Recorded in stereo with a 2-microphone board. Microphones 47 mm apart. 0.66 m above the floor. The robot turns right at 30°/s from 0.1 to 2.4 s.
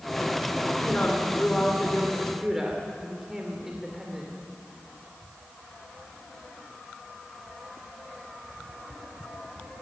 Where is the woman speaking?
140° left, 2.5 m; by 4.3 s 170° right, 2.5 m.